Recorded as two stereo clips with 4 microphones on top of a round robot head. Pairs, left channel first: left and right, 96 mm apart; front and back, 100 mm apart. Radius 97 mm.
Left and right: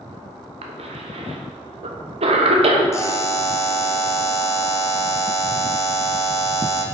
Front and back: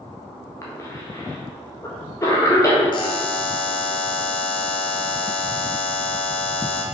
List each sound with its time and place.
0.6 s a cough: 65° right, 1.1 m
2.9 s a buzzer: 35° left, 0.8 m